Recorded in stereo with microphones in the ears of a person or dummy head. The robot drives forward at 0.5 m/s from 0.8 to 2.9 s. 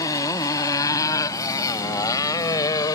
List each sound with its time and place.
0.0 s a motorcycle: 20° left (ahead or behind); by 3.0 s 25° left (ahead or behind)